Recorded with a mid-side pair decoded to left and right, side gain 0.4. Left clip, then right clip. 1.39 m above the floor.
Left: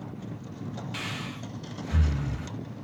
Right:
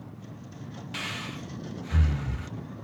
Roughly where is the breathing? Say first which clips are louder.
Right 2 dB; ahead.